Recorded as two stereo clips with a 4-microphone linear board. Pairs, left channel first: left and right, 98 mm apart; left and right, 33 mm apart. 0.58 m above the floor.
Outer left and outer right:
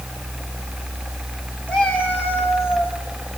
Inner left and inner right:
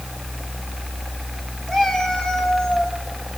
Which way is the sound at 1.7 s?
15° left (ahead or behind).